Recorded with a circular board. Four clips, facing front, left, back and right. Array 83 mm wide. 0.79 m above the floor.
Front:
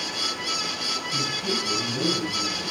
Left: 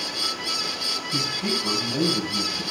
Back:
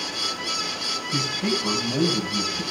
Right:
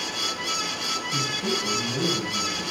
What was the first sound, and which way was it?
A man speaking, 160° left.